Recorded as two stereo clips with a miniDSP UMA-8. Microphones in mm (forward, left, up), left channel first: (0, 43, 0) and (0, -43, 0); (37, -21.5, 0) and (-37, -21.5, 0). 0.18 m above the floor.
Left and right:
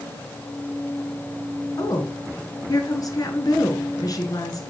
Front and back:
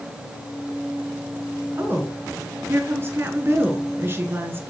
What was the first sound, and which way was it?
A woman speaking, 130° left.